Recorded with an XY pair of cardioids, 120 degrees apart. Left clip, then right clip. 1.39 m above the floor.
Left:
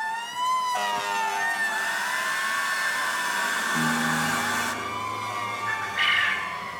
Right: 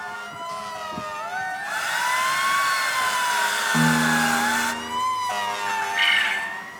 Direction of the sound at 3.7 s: 60° right.